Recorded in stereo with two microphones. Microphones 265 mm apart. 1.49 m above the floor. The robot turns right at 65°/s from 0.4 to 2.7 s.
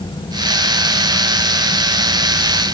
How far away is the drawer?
No drawer in this recording.